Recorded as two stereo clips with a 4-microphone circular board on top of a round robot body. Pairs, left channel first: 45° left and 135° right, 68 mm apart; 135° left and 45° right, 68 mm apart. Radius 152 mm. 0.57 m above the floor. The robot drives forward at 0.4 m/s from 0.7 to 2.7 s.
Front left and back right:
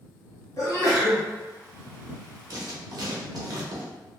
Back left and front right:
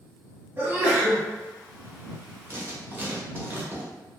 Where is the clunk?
No clunk in this recording.